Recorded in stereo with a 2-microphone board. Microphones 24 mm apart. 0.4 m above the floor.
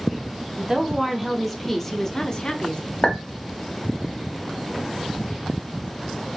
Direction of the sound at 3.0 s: 55° left (ahead or behind).